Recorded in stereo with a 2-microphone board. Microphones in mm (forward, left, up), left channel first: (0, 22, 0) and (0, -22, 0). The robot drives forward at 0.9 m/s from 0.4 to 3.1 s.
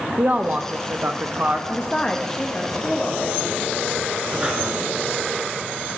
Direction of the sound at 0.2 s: 35° right (ahead or behind).